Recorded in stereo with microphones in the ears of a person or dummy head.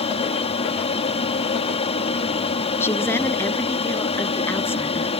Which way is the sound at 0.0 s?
30° left (ahead or behind).